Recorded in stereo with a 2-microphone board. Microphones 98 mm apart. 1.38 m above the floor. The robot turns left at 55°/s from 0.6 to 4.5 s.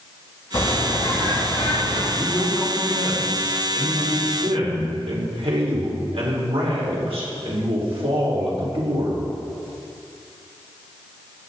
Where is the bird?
145° left, 4 m; by 2.0 s 65° left, 4 m.